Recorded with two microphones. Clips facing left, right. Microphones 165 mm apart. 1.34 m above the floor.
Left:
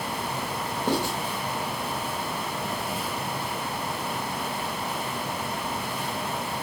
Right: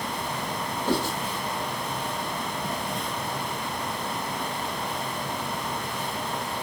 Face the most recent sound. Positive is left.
turn(degrees=40)  # may be behind; listen again after turning